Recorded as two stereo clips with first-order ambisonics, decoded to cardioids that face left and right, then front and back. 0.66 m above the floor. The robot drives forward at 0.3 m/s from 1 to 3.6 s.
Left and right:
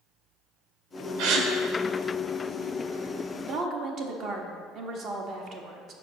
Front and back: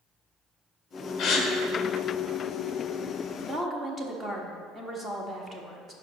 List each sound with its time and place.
1.2 s a gasp: 55° right, 0.8 m; by 1.5 s 60° right, 0.8 m
3.5 s a woman speaking: 105° right, 0.7 m; by 5.9 s 110° right, 0.8 m